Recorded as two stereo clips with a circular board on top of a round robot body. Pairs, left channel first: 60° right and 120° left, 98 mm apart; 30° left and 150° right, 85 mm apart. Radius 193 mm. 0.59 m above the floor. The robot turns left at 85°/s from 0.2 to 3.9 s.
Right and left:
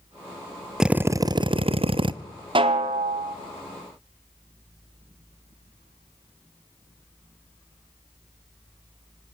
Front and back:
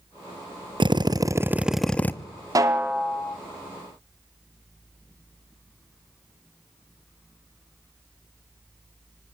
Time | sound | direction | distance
0.8 | a drill | 155° right | 1.0 m
2.5 | a snare drum | 160° left | 0.9 m